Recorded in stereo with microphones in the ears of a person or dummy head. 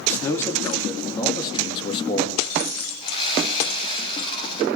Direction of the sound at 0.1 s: 15° left (ahead or behind).